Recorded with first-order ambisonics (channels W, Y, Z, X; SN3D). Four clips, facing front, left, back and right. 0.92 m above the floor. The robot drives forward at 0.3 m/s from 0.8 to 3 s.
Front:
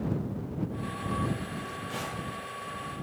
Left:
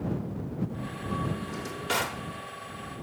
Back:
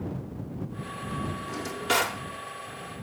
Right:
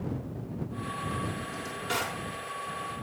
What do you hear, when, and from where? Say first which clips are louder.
1.5 s a drawer: left 2 dB, back 8 dB; 160° left, 1.4 m; by 2.2 s 165° left, 1.6 m